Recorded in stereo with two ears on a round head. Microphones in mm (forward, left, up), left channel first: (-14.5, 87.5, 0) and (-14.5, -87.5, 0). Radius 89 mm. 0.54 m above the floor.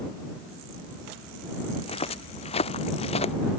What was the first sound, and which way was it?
Footsteps, 30° left (ahead or behind).